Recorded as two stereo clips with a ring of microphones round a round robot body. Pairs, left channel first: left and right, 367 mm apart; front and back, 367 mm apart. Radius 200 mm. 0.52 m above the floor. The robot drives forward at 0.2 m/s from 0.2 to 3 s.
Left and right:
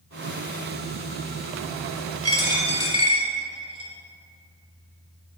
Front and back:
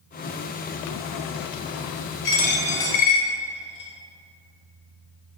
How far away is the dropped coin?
About 0.6 m.